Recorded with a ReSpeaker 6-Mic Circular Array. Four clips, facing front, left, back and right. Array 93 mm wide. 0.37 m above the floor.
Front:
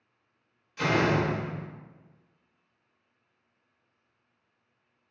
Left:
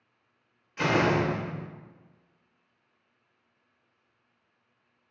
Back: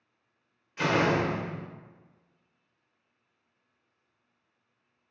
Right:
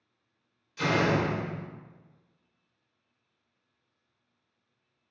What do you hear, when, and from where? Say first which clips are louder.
0.8 s a door slam: left 2 dB, even; 115° left, 0.6 m